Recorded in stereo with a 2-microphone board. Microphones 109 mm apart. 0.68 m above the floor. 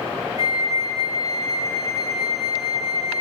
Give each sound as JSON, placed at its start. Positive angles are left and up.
{"t": 0.4, "sound": "a flute", "side_deg": -35, "distance_m": 1.5}